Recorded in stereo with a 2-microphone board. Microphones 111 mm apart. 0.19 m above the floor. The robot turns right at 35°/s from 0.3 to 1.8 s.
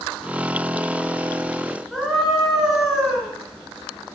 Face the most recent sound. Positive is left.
turn(degrees=0)  # may be behind; listen again after turning